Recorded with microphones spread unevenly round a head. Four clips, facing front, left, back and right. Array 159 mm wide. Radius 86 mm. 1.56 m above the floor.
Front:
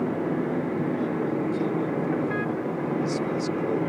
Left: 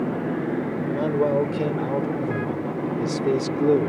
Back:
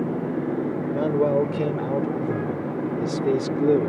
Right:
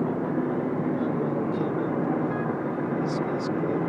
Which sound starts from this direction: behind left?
A man speaking, at 0.9 s.